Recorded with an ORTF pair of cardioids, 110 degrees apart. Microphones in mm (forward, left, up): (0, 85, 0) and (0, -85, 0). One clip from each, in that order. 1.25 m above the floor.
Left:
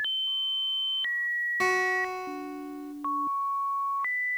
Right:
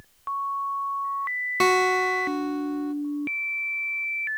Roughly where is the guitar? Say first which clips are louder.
Right 7 dB; ahead right.